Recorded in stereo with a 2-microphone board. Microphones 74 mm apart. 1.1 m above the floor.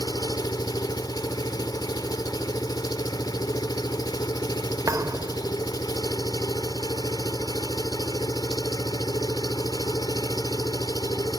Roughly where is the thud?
Right.